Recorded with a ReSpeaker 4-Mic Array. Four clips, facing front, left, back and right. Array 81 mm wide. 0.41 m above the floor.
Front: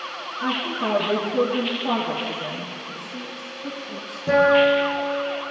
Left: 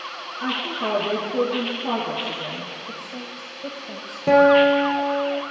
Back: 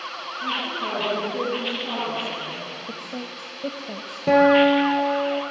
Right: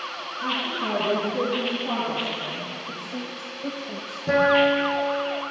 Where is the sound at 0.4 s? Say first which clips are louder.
Left 2 dB, front 3 dB; 75° left, 9.5 m.